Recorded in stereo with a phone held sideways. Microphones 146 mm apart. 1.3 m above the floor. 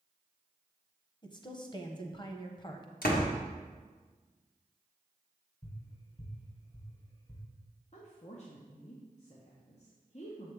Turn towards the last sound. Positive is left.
turn(degrees=50)  # may be behind; listen again after turning